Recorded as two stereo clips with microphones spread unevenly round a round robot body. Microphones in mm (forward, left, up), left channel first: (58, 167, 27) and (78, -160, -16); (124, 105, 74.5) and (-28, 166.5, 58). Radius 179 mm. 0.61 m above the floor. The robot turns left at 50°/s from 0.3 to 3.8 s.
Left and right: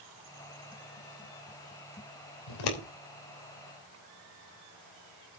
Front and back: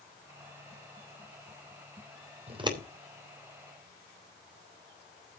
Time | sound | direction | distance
2.5 | scissors | 110° left | 3 m